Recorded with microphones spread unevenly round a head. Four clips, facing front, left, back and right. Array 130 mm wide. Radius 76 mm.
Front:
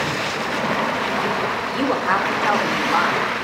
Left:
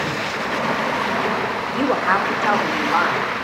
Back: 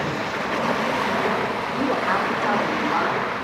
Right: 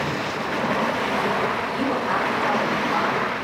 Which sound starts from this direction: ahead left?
A woman speaking, at 1.7 s.